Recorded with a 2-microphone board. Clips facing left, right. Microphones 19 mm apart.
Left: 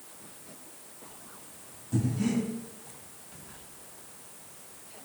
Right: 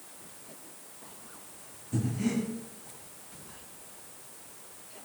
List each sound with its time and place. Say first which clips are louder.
1.9 s breathing: left 2 dB; 45° left (ahead or behind), 1.3 m